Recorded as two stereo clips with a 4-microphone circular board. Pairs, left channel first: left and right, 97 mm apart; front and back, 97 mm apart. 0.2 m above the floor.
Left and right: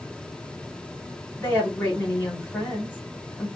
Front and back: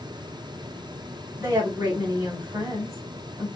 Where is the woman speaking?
140° left, 1.3 m.